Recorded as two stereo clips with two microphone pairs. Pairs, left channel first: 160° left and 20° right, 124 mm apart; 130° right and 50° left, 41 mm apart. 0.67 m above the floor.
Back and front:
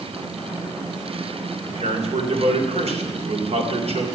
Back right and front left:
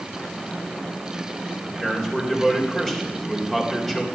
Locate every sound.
1.6 s a man speaking: 50° right, 3 m